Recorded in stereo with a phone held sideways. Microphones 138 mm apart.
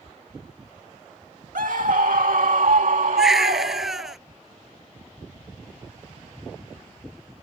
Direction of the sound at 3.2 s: Centre (ahead or behind).